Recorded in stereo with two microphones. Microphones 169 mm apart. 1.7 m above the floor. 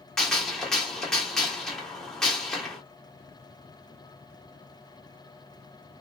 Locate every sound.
0.2 s a gunshot: 5° left (ahead or behind), 1.2 m